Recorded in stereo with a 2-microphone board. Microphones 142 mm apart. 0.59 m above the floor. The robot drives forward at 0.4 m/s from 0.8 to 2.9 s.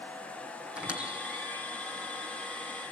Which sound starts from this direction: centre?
A squeak, at 0.8 s.